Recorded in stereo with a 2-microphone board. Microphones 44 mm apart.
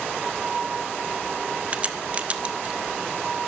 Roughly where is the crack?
Right.